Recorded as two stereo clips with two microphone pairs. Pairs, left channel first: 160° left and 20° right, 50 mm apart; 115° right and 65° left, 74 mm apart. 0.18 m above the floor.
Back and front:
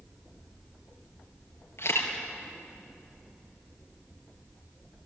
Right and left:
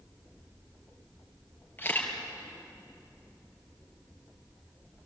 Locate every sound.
1.8 s a camera shutter: 175° right, 4.5 m